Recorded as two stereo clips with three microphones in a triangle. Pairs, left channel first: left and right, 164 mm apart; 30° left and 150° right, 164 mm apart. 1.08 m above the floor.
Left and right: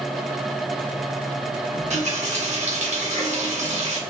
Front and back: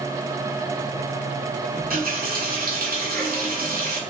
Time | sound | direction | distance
1.7 | a running tap | 130° right | 1.5 m